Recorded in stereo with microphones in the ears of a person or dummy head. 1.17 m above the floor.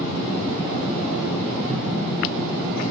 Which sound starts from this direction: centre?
An explosion, at 1.7 s.